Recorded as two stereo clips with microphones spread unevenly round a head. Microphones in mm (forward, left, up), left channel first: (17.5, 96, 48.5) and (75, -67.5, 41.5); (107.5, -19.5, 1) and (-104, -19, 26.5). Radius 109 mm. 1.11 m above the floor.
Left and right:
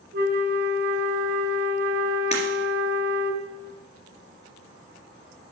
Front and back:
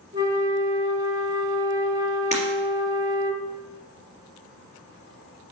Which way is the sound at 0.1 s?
115° right.